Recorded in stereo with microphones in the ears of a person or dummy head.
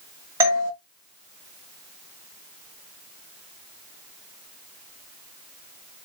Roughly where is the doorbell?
Centre.